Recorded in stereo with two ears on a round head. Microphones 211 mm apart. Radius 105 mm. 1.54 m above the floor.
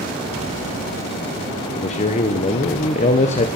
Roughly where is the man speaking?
Left.